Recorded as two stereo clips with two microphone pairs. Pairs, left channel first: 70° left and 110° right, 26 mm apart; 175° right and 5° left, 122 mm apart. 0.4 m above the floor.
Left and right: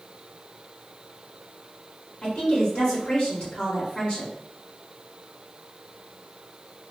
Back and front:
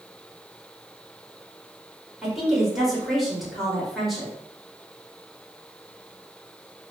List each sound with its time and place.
2.2 s a woman speaking: 95° left, 1.1 m